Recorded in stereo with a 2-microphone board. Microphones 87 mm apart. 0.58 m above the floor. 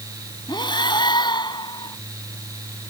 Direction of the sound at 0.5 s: 60° left (ahead or behind).